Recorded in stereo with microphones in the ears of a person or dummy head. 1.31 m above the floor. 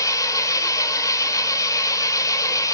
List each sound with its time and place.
0.0 s an engine running: 20° left (ahead or behind), 2 m